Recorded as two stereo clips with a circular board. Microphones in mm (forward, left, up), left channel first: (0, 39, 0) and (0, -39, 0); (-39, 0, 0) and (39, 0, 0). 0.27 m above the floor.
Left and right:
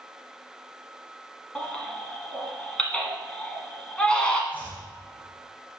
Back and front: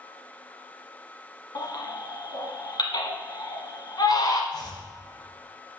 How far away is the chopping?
About 3 m.